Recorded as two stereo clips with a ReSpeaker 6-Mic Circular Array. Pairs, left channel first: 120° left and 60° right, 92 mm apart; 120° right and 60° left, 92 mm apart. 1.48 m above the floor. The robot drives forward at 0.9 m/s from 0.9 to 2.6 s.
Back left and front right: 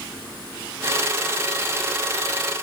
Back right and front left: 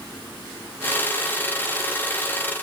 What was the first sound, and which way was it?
Only background noise.